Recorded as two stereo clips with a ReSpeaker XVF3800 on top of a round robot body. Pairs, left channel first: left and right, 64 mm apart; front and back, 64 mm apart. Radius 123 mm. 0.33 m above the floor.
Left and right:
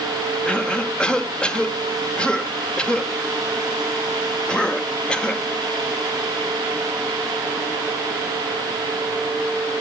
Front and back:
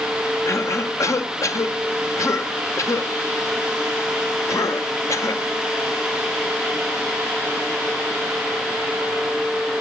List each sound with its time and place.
0.5 s a cough: 20° left, 1.6 m